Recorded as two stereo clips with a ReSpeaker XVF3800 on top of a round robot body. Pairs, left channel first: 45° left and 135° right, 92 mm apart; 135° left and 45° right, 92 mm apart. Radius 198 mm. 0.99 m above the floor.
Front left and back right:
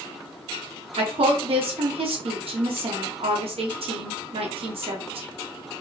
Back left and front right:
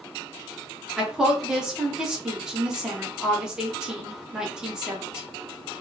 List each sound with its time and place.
1.0 s a woman speaking: 130° right, 1.1 m